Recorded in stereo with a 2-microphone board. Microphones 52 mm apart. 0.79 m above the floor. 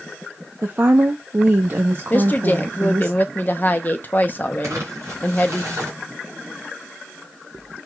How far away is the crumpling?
About 3 m.